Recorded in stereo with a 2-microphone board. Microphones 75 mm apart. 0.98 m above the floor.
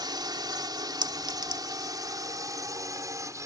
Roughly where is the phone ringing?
No phone ringing in this recording.